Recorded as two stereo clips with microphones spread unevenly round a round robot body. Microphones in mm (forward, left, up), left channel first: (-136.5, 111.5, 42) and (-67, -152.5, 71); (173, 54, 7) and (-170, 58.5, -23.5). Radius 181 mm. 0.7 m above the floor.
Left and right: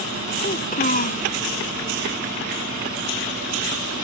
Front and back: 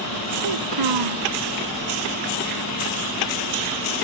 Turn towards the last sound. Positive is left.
turn(degrees=165)